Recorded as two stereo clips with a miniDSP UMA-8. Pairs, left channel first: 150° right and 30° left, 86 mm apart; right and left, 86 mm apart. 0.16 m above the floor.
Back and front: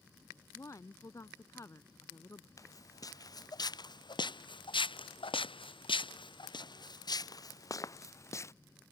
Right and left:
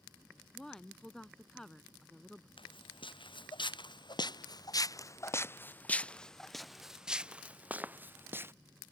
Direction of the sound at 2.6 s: 100° right.